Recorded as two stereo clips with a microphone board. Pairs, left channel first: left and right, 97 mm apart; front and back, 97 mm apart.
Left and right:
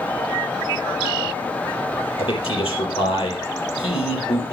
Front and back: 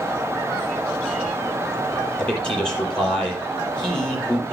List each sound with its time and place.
2.2 s a man speaking: 80° left, 6 m